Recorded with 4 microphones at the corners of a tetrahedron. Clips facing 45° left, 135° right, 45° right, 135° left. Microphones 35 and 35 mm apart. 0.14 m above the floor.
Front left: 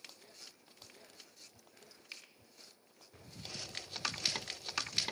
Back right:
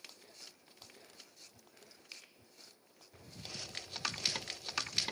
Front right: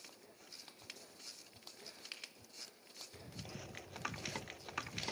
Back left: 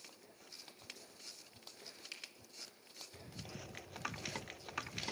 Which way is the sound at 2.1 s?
20° right.